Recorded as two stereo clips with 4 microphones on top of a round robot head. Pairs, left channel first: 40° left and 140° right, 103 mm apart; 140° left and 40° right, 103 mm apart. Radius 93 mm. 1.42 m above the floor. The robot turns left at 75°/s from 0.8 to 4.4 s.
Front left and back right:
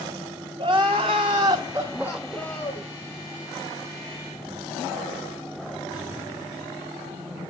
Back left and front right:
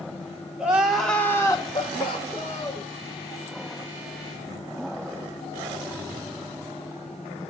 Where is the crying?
120° right, 0.6 m; by 2.9 s 85° left, 0.6 m.